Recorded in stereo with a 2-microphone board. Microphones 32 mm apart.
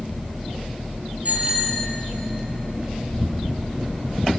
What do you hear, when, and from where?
1.2 s a bicycle bell: 45° right (ahead or behind), 6.5 m